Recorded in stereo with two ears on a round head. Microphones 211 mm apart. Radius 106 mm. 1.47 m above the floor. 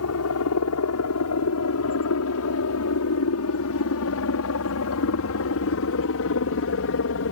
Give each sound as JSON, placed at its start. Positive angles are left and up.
{"t": 0.0, "sound": "a helicopter", "side_deg": 70}